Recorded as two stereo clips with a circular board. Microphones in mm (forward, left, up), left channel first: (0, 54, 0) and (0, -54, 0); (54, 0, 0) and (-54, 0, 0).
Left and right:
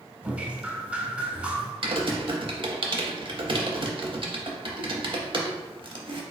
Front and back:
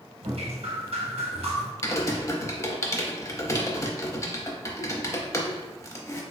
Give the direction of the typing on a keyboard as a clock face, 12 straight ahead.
2 o'clock.